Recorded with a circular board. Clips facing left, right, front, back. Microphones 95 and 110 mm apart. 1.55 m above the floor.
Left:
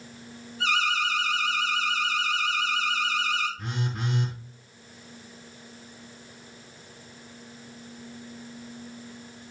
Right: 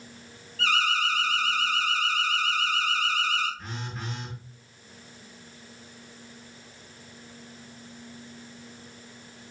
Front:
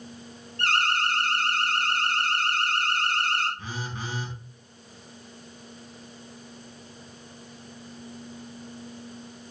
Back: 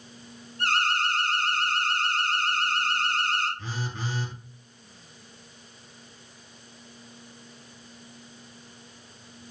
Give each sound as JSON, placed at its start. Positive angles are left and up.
{"t": 0.6, "sound": "an alarm", "azimuth_deg": 20, "distance_m": 7.5}
{"t": 3.6, "sound": "a phone buzzing", "azimuth_deg": 75, "distance_m": 6.0}